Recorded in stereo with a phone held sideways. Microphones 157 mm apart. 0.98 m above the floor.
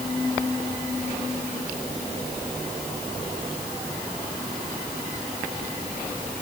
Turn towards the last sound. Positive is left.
No sound to turn to.